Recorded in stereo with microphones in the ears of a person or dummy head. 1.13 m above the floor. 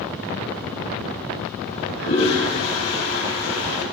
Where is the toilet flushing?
85° left, 3.5 m.